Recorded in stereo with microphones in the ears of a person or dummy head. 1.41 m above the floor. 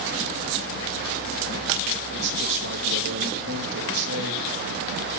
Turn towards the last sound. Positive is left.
turn(degrees=-65)  # may be behind; listen again after turning